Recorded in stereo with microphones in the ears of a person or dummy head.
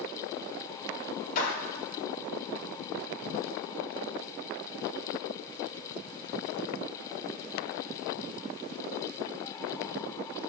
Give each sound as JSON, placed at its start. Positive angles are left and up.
{"t": 1.4, "sound": "a clap", "side_deg": 45, "distance_m": 4.0}